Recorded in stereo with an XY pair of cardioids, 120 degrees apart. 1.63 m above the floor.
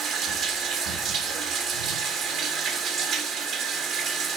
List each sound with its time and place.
0.0 s running water: 70° right, 3 m